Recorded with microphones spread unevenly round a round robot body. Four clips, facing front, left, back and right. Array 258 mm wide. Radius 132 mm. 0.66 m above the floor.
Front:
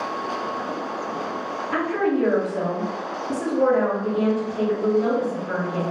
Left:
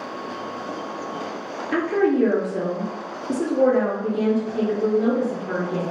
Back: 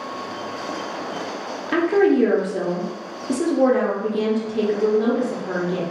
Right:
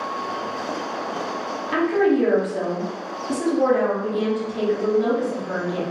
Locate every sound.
1.7 s a woman speaking: 155° left, 1.0 m